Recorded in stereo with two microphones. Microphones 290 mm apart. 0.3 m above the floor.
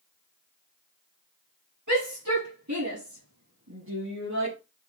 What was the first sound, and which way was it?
A shout, 75° right (ahead or behind).